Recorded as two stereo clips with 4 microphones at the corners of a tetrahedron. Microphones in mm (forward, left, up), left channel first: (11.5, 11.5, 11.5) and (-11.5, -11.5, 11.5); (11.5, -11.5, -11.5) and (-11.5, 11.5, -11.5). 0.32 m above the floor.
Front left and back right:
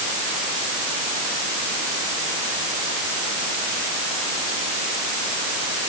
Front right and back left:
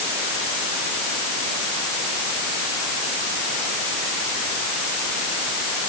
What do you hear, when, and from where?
Only background noise.